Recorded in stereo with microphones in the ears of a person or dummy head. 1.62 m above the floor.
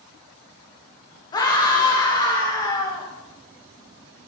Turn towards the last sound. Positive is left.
turn(degrees=25)  # may be behind; listen again after turning